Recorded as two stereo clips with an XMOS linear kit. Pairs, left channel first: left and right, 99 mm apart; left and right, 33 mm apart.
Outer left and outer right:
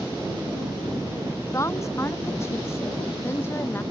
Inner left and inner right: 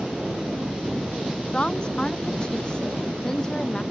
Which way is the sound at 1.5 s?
30° left (ahead or behind).